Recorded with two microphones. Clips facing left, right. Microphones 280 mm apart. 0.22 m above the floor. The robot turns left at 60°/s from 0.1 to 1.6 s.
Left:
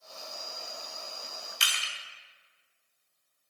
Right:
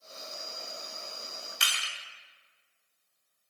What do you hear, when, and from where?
1.6 s crushing: 60° right (ahead or behind), 0.9 m